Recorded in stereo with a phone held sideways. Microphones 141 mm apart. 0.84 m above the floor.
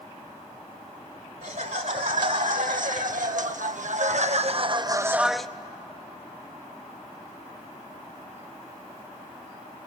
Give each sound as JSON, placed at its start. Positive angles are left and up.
{"t": 1.4, "sound": "laughter", "side_deg": -75, "distance_m": 2.5}